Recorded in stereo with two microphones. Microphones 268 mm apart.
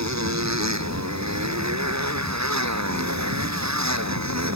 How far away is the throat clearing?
No throat clearing in this recording.